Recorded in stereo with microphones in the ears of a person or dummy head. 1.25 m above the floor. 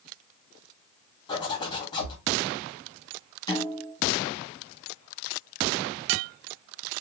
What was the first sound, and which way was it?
A zipper, 15° left (ahead or behind).